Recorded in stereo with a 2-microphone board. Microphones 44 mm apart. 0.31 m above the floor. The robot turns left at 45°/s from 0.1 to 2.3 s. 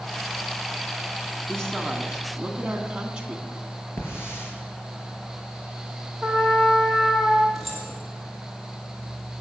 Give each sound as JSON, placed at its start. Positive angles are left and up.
{"t": 1.5, "sound": "a woman speaking", "azimuth_deg": 20, "distance_m": 2.5}
{"t": 4.0, "sound": "a hiss", "side_deg": 70, "distance_m": 5.5}
{"t": 6.2, "sound": "a trumpet", "side_deg": 5, "distance_m": 5.5}
{"t": 7.5, "sound": "keys jangling", "side_deg": 0, "distance_m": 5.5}